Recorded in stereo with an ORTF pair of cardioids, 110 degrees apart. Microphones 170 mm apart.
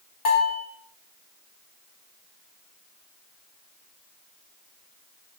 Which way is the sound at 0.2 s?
60° left.